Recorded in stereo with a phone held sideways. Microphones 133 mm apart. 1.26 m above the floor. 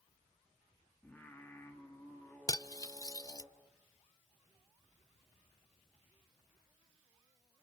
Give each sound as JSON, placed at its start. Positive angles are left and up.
{"t": 1.0, "sound": "singing", "side_deg": 15, "distance_m": 3.0}
{"t": 2.5, "sound": "cutlery clinking", "side_deg": 25, "distance_m": 0.5}